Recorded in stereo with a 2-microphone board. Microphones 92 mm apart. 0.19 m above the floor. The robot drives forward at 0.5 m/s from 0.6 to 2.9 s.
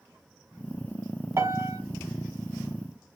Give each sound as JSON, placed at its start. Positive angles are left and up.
{"t": 1.4, "sound": "a piano", "side_deg": -35, "distance_m": 0.7}